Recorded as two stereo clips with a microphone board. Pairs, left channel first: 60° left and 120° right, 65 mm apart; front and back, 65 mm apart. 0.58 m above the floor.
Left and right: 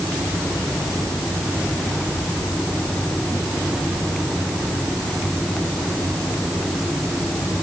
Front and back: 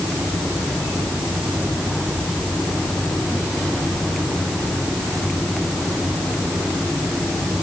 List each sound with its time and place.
Only background noise.